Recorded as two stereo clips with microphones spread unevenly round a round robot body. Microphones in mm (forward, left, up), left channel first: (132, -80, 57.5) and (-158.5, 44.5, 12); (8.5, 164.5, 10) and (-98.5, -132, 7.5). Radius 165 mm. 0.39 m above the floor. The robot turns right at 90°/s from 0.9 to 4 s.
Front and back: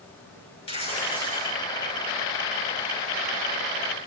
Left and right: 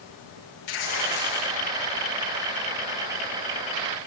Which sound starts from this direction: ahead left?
Tearing paper, at 0.7 s.